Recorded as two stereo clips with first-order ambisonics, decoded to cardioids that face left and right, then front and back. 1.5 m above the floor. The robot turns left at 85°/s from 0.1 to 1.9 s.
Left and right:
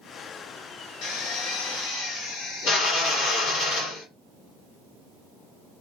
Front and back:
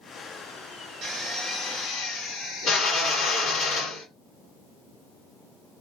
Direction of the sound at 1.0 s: 130° left.